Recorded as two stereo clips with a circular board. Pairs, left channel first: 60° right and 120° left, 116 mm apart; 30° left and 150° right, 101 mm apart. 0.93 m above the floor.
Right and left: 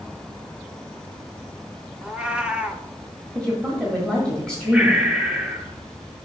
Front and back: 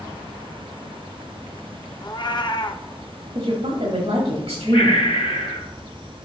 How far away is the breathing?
About 1.5 m.